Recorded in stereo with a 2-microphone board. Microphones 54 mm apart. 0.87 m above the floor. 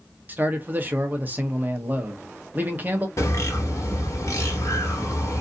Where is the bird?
65° left (ahead or behind), 1.1 m.